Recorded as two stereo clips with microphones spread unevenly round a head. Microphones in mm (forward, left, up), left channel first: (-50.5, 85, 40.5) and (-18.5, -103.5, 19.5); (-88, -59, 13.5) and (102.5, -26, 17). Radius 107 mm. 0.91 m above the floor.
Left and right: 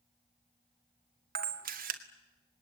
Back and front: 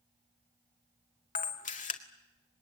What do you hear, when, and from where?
1.4 s a camera shutter: 120° right, 2 m